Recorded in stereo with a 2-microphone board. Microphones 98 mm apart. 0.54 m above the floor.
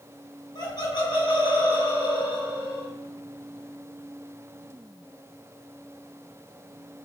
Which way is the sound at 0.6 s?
45° left (ahead or behind).